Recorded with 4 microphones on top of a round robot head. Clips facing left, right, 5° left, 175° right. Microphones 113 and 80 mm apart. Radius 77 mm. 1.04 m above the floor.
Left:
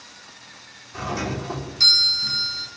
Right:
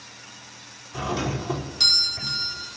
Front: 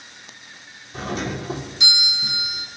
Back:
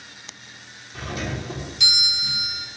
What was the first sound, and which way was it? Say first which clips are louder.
A doorbell: even, front 3 dB; 25° right.